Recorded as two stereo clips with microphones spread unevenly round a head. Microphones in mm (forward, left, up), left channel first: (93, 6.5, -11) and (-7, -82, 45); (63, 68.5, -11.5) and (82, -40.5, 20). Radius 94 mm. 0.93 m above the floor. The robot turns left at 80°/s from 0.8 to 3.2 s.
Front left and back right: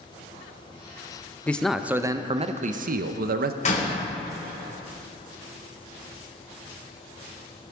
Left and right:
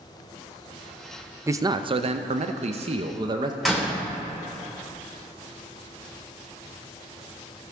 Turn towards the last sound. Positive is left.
turn(degrees=10)